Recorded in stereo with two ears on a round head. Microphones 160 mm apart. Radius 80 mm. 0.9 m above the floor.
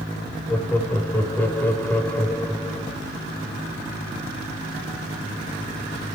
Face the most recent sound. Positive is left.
turn(degrees=10)  # may be behind; listen again after turning